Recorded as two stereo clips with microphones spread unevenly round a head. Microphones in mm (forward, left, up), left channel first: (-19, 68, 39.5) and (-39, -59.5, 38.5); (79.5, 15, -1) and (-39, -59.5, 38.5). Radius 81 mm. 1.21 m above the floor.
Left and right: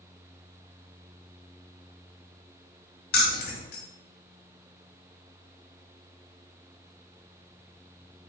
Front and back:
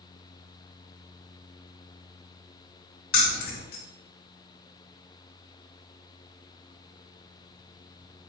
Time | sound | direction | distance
3.1 | keys jangling | 70° left | 0.9 m